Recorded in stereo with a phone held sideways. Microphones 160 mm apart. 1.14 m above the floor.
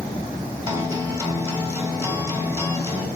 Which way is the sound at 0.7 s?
20° right (ahead or behind).